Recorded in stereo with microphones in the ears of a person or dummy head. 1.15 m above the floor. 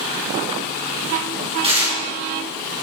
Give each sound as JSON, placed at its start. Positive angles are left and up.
{"t": 1.6, "sound": "tearing paper", "side_deg": -20, "distance_m": 1.9}